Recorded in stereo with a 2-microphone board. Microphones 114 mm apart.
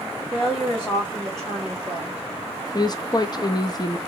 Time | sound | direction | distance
0.3 | a woman speaking | 25° left (ahead or behind) | 1.3 m
2.7 | a woman speaking | 35° left (ahead or behind) | 0.5 m